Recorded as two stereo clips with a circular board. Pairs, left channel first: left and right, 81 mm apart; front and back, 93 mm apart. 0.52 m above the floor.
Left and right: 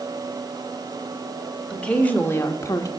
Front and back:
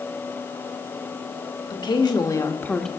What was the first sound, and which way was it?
A woman speaking, 15° left.